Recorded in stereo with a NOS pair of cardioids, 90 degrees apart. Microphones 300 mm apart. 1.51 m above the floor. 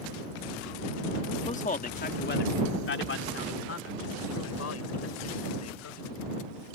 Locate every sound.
1.5 s a man speaking: 20° left; by 6.0 s 60° left